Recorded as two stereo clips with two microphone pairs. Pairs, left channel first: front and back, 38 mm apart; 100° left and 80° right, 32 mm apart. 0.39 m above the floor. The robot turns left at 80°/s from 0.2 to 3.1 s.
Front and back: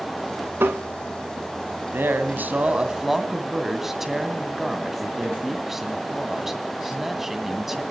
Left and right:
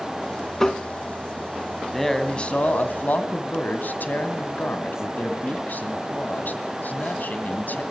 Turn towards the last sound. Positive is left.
turn(degrees=100)